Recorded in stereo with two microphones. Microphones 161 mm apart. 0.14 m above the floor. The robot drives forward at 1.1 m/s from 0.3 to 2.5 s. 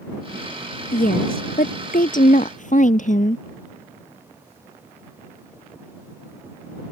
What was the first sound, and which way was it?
A woman speaking, 65° left (ahead or behind).